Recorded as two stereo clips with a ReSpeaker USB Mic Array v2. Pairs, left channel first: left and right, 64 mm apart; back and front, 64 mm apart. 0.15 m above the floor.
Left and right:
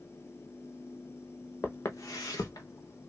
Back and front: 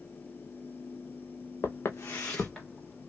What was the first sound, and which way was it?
Footsteps, 140° left.